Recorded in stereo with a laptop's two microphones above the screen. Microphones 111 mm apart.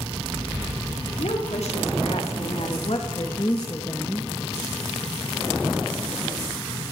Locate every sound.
1.2 s a woman speaking: 80° left, 3 m; by 4.3 s 10° left (ahead or behind), 1.3 m